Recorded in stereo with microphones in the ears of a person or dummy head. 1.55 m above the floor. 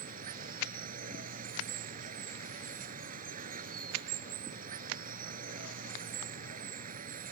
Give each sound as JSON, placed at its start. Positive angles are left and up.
{"t": 0.0, "sound": "running water", "side_deg": -45}